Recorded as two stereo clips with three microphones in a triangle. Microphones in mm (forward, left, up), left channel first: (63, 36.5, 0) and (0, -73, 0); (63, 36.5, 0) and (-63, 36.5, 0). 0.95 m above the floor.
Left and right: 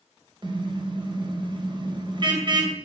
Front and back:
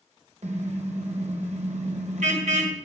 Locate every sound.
0.4 s a car horn: 170° right, 3 m